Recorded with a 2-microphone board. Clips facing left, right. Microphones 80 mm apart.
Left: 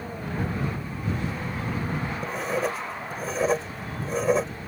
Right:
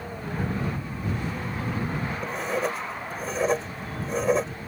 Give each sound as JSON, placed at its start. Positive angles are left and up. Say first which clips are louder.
{"t": 2.2, "sound": "writing", "louder": "even", "side_deg": 0}